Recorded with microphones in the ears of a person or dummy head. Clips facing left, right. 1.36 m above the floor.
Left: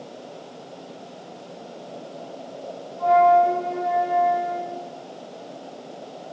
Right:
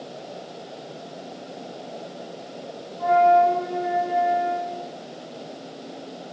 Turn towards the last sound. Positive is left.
turn(degrees=-5)  # may be behind; listen again after turning